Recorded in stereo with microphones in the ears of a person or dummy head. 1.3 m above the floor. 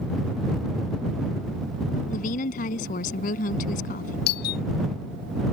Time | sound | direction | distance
2.1 | a woman speaking | 45° left (ahead or behind) | ?
4.3 | a doorbell | 50° left (ahead or behind) | ?